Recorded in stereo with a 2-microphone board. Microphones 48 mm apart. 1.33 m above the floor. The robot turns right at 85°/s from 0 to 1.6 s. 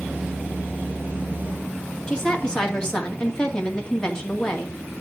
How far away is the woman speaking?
About 2.5 m.